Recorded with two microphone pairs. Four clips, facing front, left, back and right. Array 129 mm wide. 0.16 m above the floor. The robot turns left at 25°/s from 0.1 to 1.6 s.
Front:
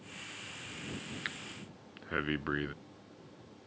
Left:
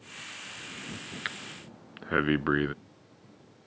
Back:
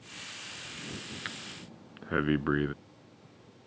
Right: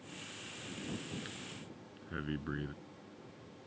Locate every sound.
1.2 s breathing: 110° left; by 2.7 s 100° left